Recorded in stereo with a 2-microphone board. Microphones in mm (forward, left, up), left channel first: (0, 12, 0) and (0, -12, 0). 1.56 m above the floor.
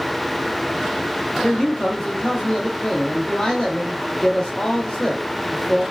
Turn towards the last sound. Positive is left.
turn(degrees=20)  # may be behind; listen again after turning